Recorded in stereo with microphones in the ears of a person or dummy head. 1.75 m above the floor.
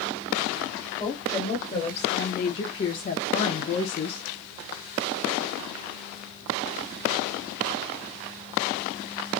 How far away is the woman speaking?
About 3 m.